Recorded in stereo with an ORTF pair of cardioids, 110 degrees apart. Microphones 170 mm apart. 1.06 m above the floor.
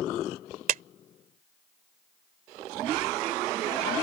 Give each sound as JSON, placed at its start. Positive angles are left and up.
{"t": 0.7, "sound": "a clap", "azimuth_deg": -55}